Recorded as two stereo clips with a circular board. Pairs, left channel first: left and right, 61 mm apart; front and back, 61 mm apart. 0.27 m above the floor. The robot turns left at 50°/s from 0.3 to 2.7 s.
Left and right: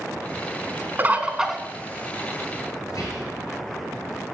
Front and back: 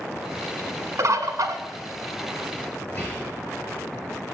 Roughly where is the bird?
Behind right.